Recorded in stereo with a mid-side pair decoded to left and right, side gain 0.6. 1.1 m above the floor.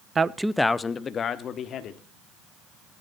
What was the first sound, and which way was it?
A man speaking, 30° right.